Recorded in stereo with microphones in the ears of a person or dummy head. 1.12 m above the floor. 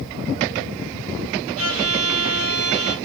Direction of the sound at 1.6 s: 90° right.